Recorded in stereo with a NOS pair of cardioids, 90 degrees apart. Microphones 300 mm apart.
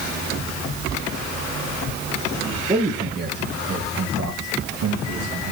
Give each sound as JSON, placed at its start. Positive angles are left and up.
{"t": 2.7, "sound": "a man speaking", "azimuth_deg": -20, "distance_m": 2.5}